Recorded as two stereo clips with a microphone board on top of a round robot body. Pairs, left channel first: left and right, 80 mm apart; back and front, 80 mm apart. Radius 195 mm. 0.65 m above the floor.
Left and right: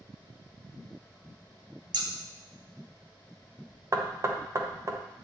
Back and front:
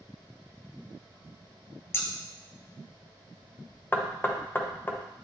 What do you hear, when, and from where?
1.9 s scissors: 120° right, 0.6 m
3.9 s knocking: 125° right, 0.8 m